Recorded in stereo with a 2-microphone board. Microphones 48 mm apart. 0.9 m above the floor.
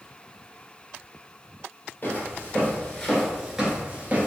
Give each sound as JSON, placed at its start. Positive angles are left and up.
{"t": 2.0, "sound": "footsteps", "side_deg": 40, "distance_m": 1.1}